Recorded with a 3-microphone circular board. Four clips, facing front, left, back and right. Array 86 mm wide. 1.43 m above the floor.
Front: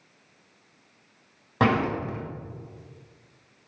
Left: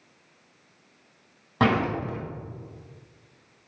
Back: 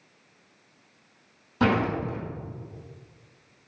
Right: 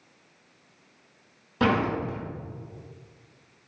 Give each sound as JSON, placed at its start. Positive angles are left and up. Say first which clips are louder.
{"t": 1.6, "sound": "a door slam", "louder": "left 1 dB, front 1 dB", "azimuth_deg": 30, "distance_m": 4.0}